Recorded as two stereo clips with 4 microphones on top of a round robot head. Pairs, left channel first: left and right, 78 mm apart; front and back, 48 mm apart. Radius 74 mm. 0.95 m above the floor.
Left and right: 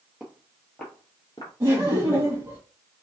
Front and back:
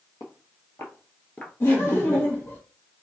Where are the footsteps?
10° right, 1.4 m; by 1.5 s 50° left, 1.1 m.